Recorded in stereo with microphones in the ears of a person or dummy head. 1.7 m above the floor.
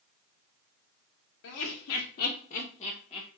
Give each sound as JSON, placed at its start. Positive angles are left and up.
{"t": 1.4, "sound": "laughter", "side_deg": 75, "distance_m": 0.6}